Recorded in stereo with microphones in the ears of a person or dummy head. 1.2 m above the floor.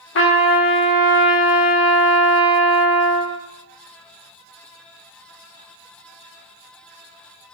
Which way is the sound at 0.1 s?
65° left (ahead or behind).